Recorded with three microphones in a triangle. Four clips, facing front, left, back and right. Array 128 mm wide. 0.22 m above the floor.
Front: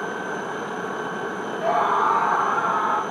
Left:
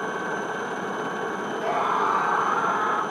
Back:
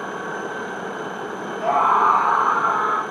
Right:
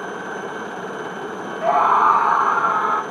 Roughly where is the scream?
Right.